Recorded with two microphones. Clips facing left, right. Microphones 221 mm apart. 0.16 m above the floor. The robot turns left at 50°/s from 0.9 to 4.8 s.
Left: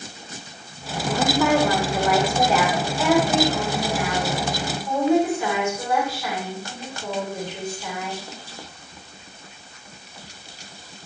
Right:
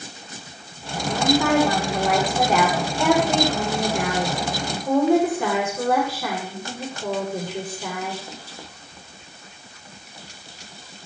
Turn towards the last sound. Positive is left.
turn(degrees=-125)